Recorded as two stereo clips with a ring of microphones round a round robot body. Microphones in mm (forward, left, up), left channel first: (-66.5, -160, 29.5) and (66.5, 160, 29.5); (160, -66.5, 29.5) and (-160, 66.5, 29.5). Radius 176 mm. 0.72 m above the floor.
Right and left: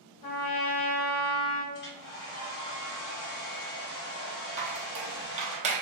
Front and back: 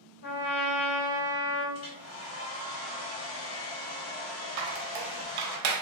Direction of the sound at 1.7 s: 75° right.